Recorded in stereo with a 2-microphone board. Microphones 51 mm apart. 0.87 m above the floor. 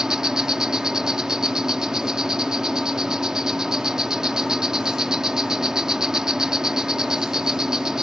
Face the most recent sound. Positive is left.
turn(degrees=-10)  # may be behind; listen again after turning